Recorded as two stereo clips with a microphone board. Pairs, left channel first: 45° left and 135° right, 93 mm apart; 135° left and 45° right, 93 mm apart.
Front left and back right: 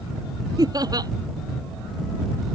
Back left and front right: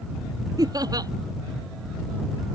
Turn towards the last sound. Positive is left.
turn(degrees=-90)